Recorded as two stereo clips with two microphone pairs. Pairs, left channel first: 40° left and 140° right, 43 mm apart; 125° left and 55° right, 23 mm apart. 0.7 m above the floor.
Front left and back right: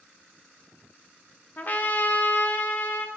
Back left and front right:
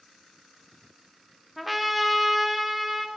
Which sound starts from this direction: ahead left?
A trumpet, at 1.6 s.